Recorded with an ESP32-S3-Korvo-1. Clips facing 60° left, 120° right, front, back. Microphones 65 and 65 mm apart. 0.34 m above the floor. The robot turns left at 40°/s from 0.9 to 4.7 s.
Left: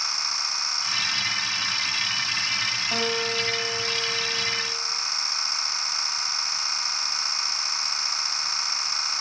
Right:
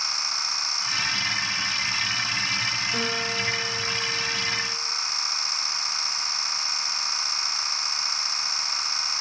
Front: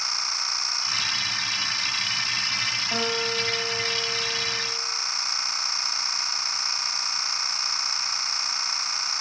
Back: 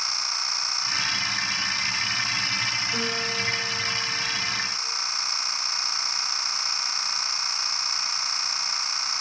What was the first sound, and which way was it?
A guitar, 30° left.